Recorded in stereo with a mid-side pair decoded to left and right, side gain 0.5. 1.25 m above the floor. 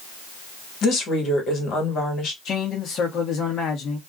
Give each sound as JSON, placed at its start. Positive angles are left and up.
{"t": 0.8, "sound": "a woman speaking", "azimuth_deg": 55, "distance_m": 1.6}
{"t": 2.5, "sound": "a man speaking", "azimuth_deg": 55, "distance_m": 1.0}